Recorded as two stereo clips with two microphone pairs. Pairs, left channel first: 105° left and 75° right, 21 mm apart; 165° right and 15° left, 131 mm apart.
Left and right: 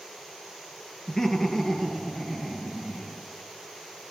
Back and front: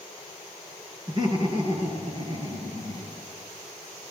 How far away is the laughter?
About 2.5 m.